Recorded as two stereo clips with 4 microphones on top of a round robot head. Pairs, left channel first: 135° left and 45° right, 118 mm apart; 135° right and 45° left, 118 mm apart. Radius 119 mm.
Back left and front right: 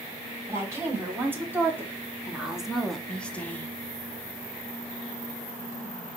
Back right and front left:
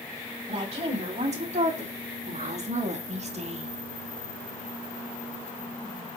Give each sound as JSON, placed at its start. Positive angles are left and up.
{"t": 0.5, "sound": "a woman speaking", "azimuth_deg": 20, "distance_m": 3.5}